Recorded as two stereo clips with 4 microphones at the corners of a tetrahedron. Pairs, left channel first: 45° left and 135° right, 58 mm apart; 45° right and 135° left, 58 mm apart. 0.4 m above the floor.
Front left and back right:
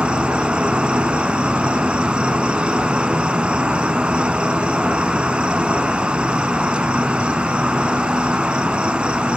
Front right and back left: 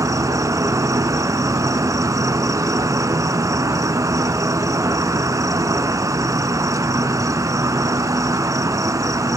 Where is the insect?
150° left, 0.8 m.